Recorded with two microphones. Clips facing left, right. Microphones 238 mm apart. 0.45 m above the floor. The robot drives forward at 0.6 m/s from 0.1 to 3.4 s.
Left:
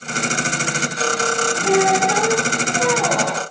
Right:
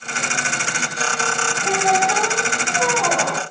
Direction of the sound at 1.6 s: 10° left (ahead or behind).